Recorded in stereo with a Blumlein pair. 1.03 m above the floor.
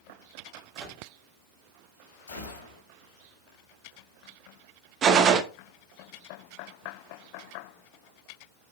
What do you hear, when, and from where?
0.8 s a microwave: 20° right, 1.9 m
2.3 s a gunshot: 70° left, 2.5 m
5.0 s a gunshot: 30° right, 0.9 m